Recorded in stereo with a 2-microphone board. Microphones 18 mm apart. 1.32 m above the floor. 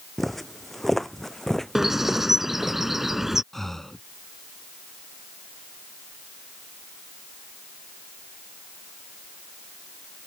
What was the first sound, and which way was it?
Footsteps, 10° left (ahead or behind).